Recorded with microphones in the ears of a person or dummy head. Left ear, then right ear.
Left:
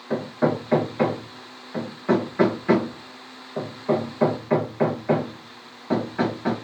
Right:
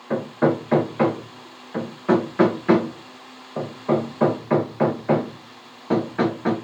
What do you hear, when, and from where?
0.1 s hammering: 10° right (ahead or behind), 0.7 m